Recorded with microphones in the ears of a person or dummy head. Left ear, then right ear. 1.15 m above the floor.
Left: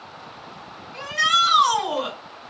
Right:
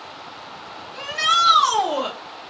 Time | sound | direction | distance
0.9 | a shout | centre (ahead or behind) | 3 m